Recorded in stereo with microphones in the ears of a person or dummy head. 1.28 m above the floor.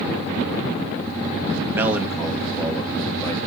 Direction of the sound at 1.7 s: 10° right (ahead or behind).